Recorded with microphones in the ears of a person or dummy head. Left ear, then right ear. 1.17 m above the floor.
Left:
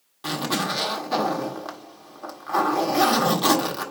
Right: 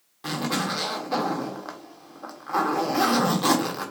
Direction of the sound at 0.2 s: 15° left (ahead or behind).